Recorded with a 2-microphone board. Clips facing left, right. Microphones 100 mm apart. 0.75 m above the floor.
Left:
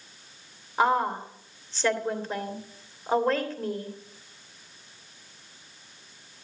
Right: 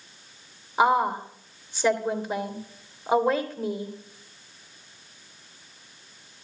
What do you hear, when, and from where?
0.8 s a woman speaking: 10° right (ahead or behind), 3 m